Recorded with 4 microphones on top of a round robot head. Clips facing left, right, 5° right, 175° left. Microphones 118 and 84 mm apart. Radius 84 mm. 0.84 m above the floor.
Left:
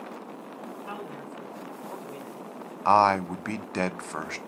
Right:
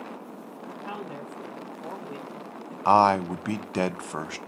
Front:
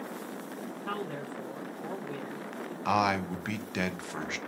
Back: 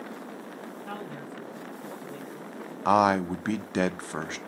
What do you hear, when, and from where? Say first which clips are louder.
0.8 s a man speaking: right 2 dB, front 4 dB; 30° right, 1.4 m; by 2.8 s 5° right, 2.5 m
2.9 s a man speaking: right 1 dB, back 6 dB; 160° right, 0.5 m